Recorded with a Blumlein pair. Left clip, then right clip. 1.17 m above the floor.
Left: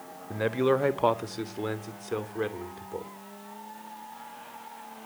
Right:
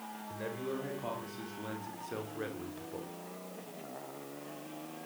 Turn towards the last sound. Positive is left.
turn(degrees=15)